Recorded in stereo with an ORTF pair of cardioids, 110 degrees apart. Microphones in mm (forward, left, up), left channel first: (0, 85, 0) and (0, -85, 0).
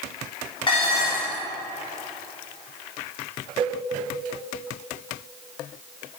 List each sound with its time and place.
0.7 s dishes clattering: 30° left, 2.5 m
3.6 s a cowbell: 30° right, 0.8 m